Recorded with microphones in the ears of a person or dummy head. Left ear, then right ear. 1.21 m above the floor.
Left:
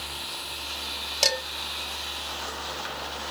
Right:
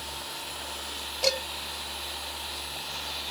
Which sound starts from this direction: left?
Dishes clattering, at 1.2 s.